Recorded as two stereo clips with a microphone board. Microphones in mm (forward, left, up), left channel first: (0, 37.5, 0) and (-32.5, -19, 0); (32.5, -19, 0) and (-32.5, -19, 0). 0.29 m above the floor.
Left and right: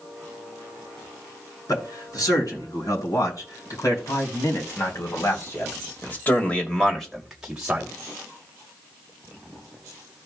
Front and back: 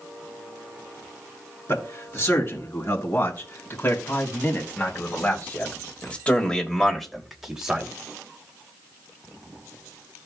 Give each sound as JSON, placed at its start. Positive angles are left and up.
{"t": 1.7, "sound": "a man speaking", "azimuth_deg": 45, "distance_m": 5.0}